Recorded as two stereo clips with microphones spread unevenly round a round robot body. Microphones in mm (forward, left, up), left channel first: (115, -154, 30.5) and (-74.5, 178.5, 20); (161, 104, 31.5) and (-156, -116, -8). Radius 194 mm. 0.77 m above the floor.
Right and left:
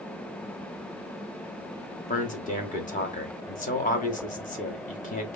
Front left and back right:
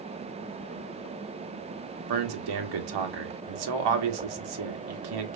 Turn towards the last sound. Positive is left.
turn(degrees=-130)